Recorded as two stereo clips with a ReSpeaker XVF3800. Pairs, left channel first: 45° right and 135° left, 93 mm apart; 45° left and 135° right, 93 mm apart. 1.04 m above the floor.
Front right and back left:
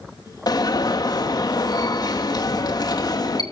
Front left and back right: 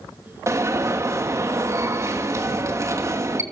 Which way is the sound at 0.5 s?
80° right.